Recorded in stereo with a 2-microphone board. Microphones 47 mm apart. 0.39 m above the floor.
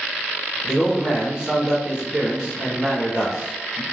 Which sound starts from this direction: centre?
A man speaking, at 0.6 s.